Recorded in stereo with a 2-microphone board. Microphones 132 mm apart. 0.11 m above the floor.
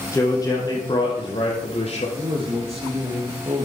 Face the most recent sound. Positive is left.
turn(degrees=-50)  # may be behind; listen again after turning